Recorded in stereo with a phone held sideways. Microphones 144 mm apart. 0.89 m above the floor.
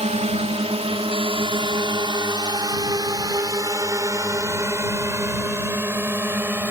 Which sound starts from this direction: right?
A drone, at 0.0 s.